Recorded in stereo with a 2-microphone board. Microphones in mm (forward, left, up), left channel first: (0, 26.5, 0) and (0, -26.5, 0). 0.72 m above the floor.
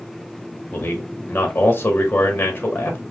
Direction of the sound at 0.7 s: 40° left (ahead or behind).